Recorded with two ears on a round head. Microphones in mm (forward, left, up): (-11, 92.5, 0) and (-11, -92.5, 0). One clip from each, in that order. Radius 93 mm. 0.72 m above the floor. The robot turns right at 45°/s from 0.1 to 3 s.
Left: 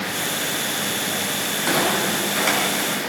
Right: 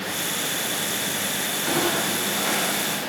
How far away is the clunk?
About 6.5 m.